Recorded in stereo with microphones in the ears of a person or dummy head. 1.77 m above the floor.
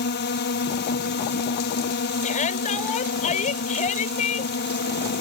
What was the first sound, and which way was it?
A drone, 60° left (ahead or behind).